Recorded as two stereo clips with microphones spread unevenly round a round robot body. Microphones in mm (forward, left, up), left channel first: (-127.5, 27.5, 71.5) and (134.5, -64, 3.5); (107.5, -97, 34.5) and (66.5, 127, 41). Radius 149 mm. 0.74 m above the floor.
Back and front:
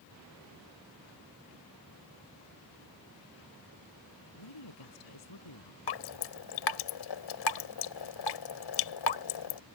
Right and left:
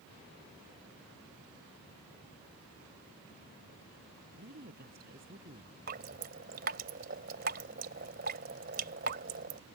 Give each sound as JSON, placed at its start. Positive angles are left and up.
{"t": 4.3, "sound": "a woman speaking", "azimuth_deg": 160}
{"t": 5.9, "sound": "dripping", "azimuth_deg": 160}